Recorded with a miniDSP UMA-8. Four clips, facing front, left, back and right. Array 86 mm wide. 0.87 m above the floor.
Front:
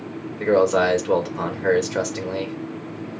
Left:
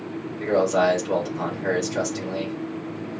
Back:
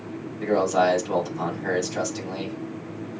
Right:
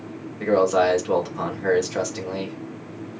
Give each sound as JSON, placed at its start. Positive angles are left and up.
{"t": 0.4, "sound": "a man speaking", "azimuth_deg": -30, "distance_m": 2.0}